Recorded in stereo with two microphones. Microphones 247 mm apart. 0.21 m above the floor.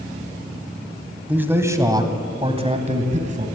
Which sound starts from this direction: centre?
A man speaking, at 1.3 s.